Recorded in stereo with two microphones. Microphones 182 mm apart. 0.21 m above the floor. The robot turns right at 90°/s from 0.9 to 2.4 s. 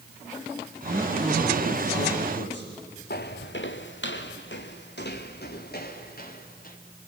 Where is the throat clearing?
No throat clearing in this recording.